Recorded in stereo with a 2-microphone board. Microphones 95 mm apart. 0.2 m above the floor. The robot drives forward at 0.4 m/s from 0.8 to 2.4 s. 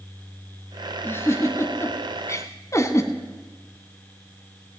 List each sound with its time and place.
1.0 s a giggle: 25° left (ahead or behind), 1.4 m; by 3.1 s 35° left (ahead or behind), 1.1 m